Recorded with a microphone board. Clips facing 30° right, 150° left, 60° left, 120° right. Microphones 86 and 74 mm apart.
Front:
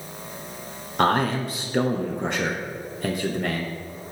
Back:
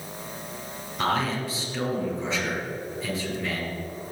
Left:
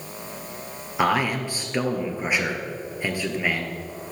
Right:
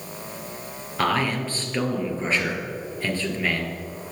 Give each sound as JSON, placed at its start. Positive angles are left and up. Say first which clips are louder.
{"t": 1.0, "sound": "a man speaking", "louder": "front 5 dB, left 1 dB", "azimuth_deg": -15, "distance_m": 2.5}